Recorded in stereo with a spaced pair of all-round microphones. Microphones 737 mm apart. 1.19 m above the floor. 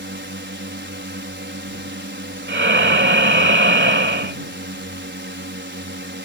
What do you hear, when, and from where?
0.0 s a drone: 15° right (ahead or behind)
2.5 s breathing: 15° right (ahead or behind)